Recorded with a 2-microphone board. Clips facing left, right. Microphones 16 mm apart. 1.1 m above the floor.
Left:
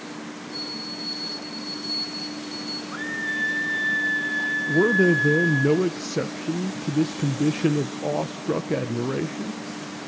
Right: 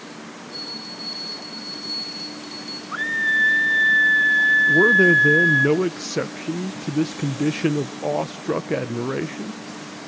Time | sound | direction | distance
0.5 | a bell | 5° right (ahead or behind) | 6.5 m
2.9 | a scream | 35° right (ahead or behind) | 2.5 m
4.7 | a man speaking | 20° right (ahead or behind) | 0.5 m